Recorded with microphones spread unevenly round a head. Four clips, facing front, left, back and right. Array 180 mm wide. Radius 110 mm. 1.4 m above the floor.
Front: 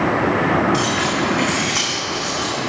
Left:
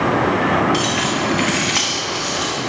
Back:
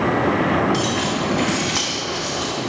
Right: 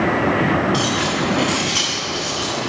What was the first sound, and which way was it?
Keys jangling, 170° left.